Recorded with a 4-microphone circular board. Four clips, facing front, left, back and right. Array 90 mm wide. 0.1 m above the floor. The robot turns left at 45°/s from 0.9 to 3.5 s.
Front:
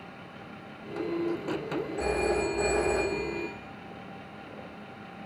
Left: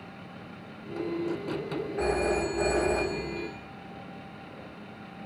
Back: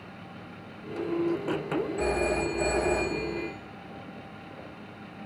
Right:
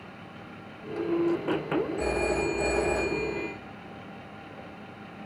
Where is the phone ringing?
80° left, 5 m; by 3.5 s 10° left, 5 m.